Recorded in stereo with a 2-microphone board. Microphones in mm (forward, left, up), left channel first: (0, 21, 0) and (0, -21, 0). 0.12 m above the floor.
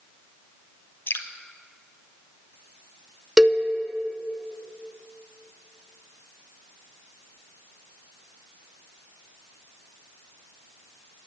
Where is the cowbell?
15° right (ahead or behind), 0.6 m.